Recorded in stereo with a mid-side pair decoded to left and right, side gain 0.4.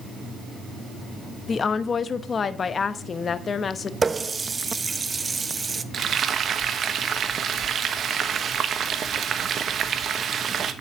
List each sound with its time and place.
1.5 s a woman speaking: 50° left, 1.0 m
4.0 s a running tap: 30° right, 0.7 m
5.9 s frying: 60° right, 1.1 m